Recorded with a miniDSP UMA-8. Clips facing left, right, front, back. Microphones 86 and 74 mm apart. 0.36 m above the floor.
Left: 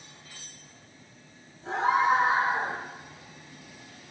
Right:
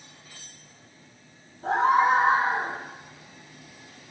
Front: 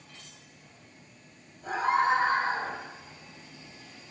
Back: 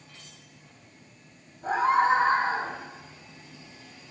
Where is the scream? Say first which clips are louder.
Right 3 dB, back 3 dB; 115° right, 9.5 m; by 2.7 s 120° right, 11.5 m.